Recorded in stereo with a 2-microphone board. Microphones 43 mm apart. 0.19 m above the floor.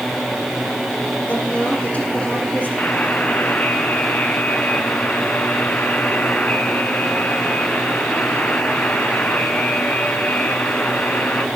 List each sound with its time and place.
1.3 s a woman speaking: 40° left (ahead or behind), 5.5 m
2.8 s a buzzer: 40° left (ahead or behind), 1.7 m